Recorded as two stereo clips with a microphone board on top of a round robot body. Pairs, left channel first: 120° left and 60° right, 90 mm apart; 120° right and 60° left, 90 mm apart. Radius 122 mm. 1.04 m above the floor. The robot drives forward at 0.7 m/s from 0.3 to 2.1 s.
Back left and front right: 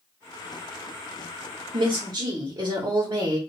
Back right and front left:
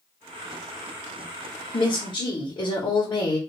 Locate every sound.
1.7 s a woman speaking: 90° right, 1.4 m; by 3.4 s 100° right, 1.4 m